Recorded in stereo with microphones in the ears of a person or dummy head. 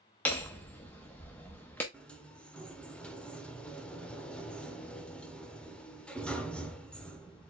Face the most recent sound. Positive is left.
turn(degrees=5)  # may be behind; listen again after turning